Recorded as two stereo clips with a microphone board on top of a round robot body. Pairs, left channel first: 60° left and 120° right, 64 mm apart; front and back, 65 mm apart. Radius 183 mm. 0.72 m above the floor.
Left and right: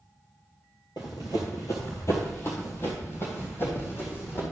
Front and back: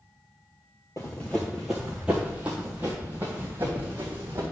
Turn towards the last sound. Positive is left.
turn(degrees=115)